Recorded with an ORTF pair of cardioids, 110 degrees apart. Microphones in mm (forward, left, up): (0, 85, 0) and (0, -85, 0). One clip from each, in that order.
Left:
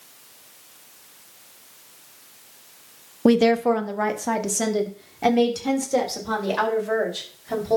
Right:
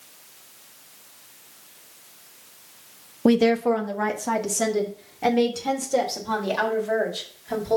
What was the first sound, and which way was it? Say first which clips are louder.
A woman speaking: left 2 dB; 5° left.